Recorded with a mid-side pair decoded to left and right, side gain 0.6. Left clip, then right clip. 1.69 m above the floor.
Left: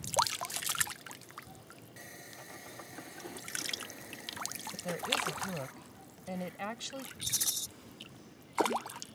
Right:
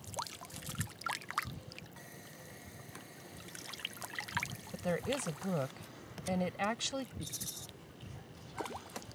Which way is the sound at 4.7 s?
25° right.